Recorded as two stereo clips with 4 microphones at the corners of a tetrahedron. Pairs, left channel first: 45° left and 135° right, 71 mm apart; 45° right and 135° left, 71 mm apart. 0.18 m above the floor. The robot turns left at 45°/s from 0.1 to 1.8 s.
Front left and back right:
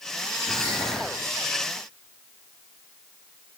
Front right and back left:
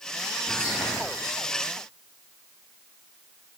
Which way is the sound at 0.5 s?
95° right.